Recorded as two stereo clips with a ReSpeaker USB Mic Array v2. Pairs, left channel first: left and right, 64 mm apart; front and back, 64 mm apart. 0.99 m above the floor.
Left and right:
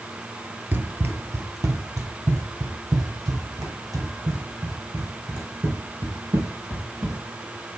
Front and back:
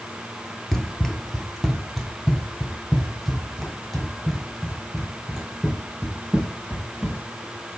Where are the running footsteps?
80° right, 1.1 m; by 7.2 s 90° right, 5.5 m.